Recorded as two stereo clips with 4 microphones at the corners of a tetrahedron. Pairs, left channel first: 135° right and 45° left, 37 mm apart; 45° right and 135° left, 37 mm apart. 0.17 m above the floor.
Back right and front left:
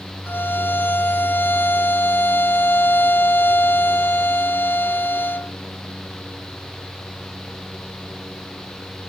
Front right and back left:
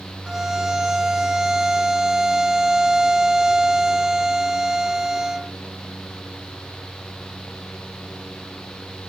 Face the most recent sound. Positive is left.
turn(degrees=-155)